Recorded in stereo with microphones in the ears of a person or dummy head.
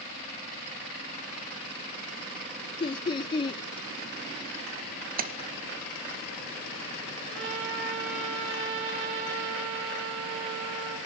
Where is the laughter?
25° left (ahead or behind), 0.7 m.